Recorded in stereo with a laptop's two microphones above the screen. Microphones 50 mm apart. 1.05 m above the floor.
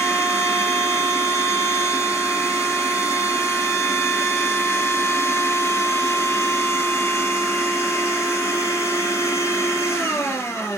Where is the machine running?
80° left, 4 m.